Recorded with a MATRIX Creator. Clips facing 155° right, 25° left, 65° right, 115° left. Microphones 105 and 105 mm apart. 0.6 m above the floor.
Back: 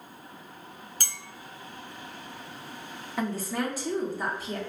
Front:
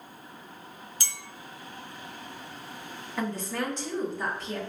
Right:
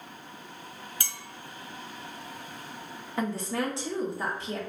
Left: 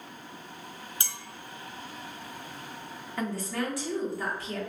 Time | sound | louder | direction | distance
1.0 | a clink | back 2 dB, even | 175° left | 0.6 m
3.2 | a woman speaking | back 1 dB, right 2 dB | 80° right | 1.0 m